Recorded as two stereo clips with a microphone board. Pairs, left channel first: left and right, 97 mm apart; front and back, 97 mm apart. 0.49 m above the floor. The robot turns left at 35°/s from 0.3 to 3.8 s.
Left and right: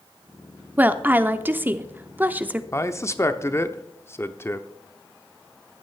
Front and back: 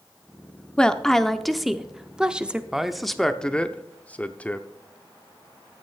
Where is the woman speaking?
60° right, 0.6 m; by 2.6 s 125° right, 0.6 m.